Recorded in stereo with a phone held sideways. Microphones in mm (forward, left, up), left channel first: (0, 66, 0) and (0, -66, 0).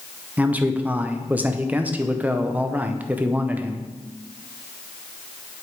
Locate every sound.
0.4 s a man speaking: 10° right (ahead or behind), 0.7 m